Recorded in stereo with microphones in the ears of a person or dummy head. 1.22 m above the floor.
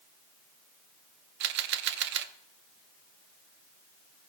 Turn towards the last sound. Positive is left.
turn(degrees=-65)  # may be behind; listen again after turning